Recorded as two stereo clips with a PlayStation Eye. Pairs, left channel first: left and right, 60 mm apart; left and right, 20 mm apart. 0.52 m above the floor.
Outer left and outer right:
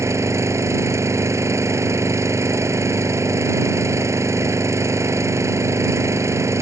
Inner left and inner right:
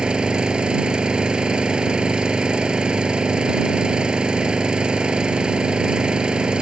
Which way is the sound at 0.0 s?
55° right (ahead or behind).